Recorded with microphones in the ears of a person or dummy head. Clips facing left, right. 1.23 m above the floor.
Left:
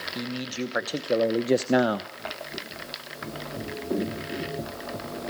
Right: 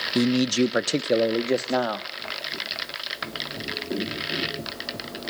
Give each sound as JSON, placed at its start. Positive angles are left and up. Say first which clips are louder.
{"t": 0.1, "sound": "a man speaking", "louder": "right 12 dB", "side_deg": -60, "distance_m": 1.1}